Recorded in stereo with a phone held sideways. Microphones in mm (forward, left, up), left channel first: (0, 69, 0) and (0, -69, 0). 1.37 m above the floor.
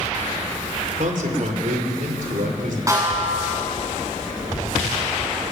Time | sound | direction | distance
1.0 | a man speaking | 65° right (ahead or behind) | 3.5 m
2.9 | a snare drum | 25° right (ahead or behind) | 8.5 m